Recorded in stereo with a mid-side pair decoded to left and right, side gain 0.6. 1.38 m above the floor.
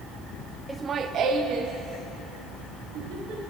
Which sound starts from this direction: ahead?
Laughter, at 0.7 s.